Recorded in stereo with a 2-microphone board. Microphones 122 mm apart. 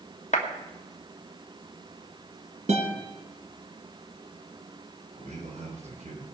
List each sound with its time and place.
0.3 s a clap: 75° left (ahead or behind), 1.4 m
2.7 s a guitar: 70° right (ahead or behind), 3 m
5.2 s a man speaking: 80° right, 4 m